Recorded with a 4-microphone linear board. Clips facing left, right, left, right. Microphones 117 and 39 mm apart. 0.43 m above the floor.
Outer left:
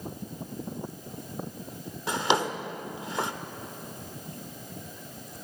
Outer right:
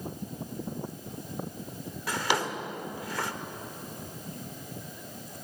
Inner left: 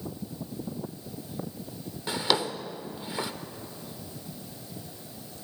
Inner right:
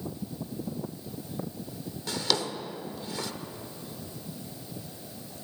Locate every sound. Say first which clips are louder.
2.1 s a drawer: outer left 3 dB, inner left 3 dB; 20° left (ahead or behind), 0.7 m